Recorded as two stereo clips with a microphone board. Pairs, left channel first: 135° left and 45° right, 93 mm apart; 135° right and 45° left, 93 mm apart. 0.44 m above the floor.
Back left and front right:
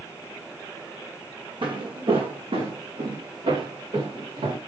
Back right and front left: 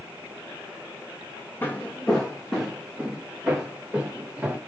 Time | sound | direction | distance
1.6 | footsteps | 70° right | 1.4 m